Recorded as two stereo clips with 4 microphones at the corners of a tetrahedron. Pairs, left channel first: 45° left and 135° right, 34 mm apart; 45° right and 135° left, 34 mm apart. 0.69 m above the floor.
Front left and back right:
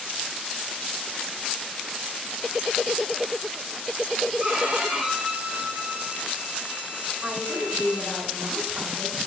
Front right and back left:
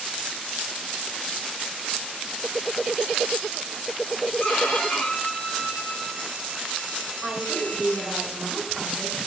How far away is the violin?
About 1.7 m.